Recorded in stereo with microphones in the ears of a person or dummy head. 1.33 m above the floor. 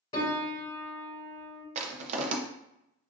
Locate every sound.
0.1 s a piano: 20° left (ahead or behind), 2 m
1.8 s crushing: 35° right (ahead or behind), 0.7 m